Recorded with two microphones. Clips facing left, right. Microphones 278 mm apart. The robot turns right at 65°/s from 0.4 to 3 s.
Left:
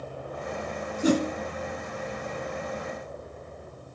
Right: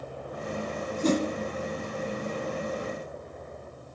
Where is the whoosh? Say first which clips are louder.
Left 2 dB; 10° left (ahead or behind), 1.2 m; by 1.2 s 15° left (ahead or behind), 1.2 m.